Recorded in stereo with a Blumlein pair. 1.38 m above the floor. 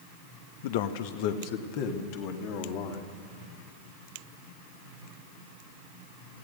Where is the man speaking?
50° left, 1.1 m; by 3.2 s 45° left, 3.5 m.